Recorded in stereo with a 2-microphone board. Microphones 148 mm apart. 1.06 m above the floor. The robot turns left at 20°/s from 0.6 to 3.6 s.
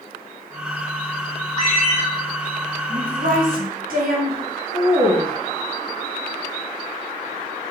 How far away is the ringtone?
About 1.6 m.